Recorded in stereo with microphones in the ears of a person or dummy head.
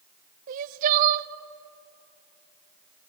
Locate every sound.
0.5 s crying: 45° right (ahead or behind), 0.7 m